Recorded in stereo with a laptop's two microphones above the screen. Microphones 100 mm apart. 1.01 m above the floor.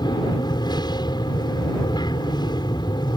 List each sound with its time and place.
0.0 s an aircraft: 45° left (ahead or behind)